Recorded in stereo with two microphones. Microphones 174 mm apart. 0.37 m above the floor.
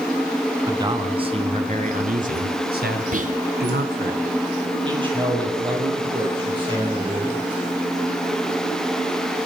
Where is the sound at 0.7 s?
20° right (ahead or behind), 3.5 m; by 4.1 s 75° right (ahead or behind), 4 m.